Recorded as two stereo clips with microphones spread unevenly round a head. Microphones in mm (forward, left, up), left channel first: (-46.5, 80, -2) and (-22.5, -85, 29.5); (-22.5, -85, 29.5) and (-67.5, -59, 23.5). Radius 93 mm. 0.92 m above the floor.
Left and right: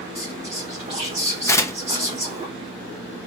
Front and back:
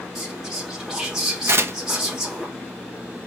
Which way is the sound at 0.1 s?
135° right.